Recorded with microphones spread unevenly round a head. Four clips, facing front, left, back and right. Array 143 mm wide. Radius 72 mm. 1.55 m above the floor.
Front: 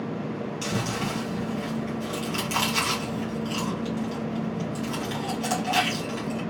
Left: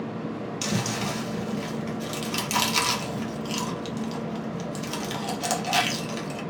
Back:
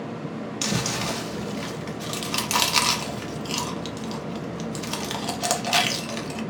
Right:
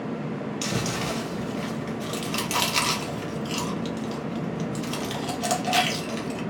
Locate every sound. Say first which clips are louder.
0.6 s chewing: left 1 dB, back 2 dB; 170° left, 1.0 m